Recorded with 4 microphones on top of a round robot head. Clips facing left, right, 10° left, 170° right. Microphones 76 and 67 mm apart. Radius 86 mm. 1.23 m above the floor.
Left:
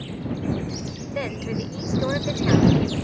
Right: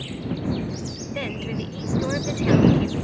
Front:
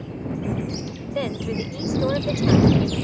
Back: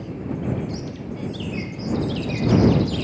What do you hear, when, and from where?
1.1 s a woman speaking: 15° left